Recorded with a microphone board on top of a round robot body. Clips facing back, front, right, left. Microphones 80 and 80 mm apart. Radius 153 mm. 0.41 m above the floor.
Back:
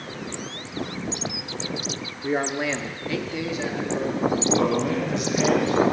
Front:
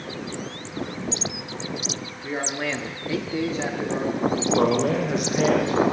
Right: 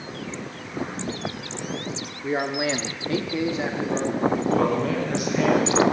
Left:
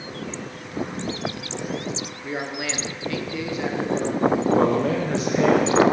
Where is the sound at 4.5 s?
35° left, 1.6 m.